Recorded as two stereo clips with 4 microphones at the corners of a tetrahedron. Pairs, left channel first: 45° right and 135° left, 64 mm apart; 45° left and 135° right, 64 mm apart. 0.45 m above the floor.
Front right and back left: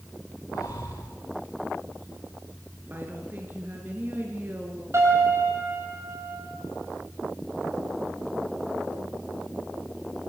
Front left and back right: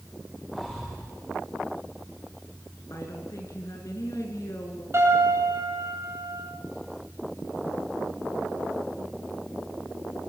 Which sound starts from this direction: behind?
A piano, at 4.9 s.